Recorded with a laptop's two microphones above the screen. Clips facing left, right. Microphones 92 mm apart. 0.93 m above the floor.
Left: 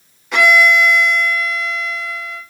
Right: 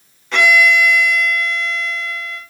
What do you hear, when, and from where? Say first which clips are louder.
0.3 s a violin: left 1 dB; 5° left (ahead or behind), 2.5 m